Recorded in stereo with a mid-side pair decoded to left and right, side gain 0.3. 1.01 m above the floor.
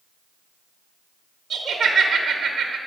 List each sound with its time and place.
1.5 s laughter: 60° right, 0.9 m